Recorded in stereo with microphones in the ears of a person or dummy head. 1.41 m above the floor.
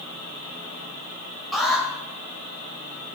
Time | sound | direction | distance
1.5 | an alarm | 5° left (ahead or behind) | 5.5 m